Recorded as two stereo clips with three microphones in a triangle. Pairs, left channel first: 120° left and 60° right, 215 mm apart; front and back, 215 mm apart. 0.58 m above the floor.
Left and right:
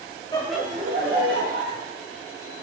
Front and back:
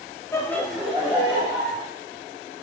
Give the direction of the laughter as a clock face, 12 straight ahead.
10 o'clock.